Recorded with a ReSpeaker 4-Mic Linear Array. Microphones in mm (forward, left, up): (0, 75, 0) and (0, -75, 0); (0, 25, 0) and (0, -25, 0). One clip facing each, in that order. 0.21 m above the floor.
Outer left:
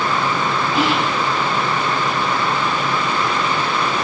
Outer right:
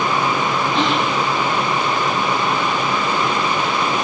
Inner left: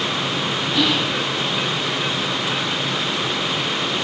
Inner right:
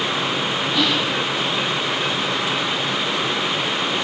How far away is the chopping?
No chopping in this recording.